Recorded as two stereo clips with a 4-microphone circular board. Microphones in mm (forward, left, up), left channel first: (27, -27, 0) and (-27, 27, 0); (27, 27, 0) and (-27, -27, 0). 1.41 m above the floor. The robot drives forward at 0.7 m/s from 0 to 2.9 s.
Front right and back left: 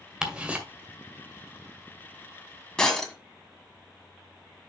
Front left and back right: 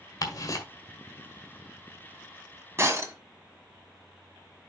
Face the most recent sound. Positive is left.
turn(degrees=-125)